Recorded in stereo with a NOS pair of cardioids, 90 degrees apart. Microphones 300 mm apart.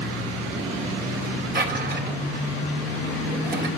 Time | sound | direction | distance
1.6 | a drawer | 35° right | 2.5 m